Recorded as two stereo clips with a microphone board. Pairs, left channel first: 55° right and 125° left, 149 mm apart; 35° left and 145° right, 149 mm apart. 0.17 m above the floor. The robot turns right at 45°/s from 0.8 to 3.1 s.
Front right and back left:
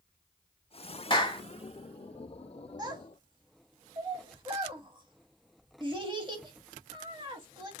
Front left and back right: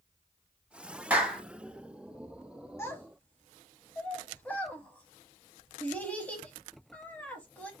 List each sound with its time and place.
1.1 s a clap: 75° right, 0.9 m; by 1.4 s 60° right, 0.9 m
2.8 s a child speaking: 90° left, 0.7 m; by 7.7 s 105° left, 0.7 m